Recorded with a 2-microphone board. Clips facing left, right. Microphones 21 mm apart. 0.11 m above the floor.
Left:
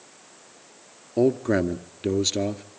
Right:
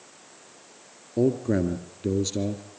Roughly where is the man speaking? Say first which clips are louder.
Left 2 dB; left.